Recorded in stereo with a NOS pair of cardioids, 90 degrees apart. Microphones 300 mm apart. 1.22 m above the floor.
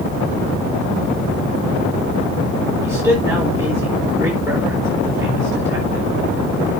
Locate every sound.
2.8 s a man speaking: 10° right, 4 m